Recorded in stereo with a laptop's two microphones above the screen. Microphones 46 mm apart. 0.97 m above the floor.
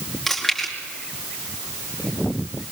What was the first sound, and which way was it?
Chewing, 5° left (ahead or behind).